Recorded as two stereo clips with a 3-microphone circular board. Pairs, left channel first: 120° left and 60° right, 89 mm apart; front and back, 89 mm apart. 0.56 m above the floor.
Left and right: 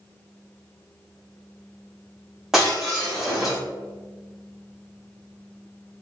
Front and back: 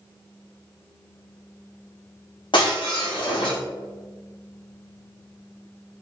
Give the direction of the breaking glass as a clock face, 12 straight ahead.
11 o'clock.